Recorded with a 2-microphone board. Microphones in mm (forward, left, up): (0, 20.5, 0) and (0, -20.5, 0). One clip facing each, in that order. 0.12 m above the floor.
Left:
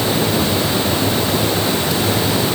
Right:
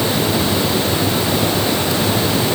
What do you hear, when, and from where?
Only background noise.